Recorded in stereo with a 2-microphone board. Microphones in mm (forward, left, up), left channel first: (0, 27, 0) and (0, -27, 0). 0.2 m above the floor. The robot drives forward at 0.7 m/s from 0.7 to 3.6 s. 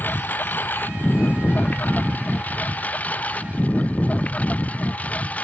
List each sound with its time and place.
0.0 s a lawn mower: 35° left (ahead or behind); by 5.5 s 25° left (ahead or behind)